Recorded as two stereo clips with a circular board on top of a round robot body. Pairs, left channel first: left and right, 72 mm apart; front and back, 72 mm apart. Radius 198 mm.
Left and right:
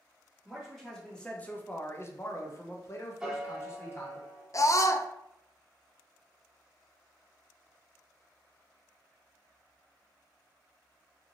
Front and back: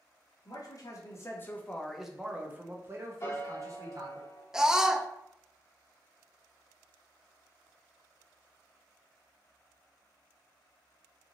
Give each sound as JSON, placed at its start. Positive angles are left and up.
{"t": 0.5, "sound": "a man speaking", "azimuth_deg": 0, "distance_m": 0.9}
{"t": 3.2, "sound": "a piano", "azimuth_deg": -10, "distance_m": 1.1}
{"t": 4.5, "sound": "a scream", "azimuth_deg": 100, "distance_m": 0.6}